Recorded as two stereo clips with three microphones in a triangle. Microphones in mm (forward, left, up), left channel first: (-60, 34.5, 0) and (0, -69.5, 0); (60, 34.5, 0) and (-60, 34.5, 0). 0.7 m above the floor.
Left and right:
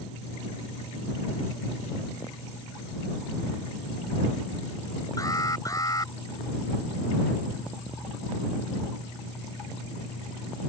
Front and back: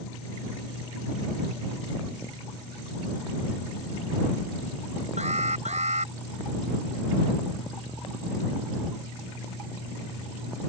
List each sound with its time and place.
5.2 s an alarm: straight behind